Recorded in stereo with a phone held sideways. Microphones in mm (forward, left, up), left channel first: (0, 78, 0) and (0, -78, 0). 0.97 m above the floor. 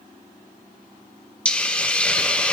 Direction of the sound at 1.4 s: 10° left (ahead or behind).